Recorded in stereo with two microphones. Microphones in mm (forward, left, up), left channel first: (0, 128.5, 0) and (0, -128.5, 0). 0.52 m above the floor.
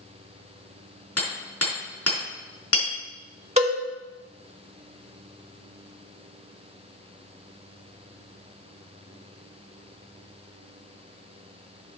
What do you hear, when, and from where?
1.2 s hammering: 65° left (ahead or behind), 4.5 m
3.6 s a cowbell: 25° right (ahead or behind), 1.8 m